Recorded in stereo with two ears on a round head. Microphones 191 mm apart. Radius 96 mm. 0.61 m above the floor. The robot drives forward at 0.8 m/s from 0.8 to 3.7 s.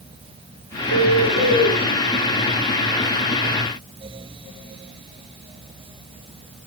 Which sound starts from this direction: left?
A bird, at 0.9 s.